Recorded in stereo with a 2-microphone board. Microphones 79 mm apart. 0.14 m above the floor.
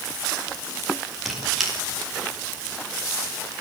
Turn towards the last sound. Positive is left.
turn(degrees=0)  # may be behind; listen again after turning